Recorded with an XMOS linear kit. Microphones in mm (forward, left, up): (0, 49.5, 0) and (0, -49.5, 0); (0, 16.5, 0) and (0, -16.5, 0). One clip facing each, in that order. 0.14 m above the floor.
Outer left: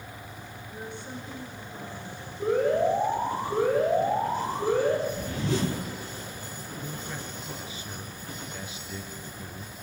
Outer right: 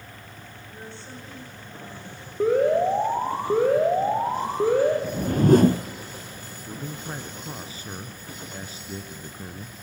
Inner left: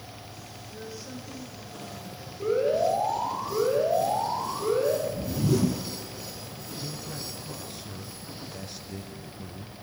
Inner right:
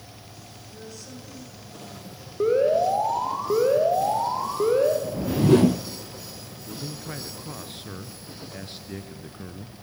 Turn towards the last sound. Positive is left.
turn(degrees=-40)  # may be behind; listen again after turning